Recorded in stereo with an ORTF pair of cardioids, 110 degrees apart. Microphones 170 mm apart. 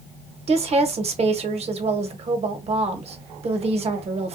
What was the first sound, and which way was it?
A woman speaking, 40° right.